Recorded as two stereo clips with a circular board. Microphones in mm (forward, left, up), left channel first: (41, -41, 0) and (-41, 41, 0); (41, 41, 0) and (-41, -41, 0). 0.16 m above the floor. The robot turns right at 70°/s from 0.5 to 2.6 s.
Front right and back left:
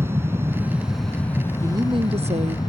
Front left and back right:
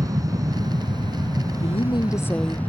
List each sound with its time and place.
0.0 s an aircraft: 170° right; by 2.7 s 25° right
1.6 s a woman speaking: 70° left; by 2.6 s 140° left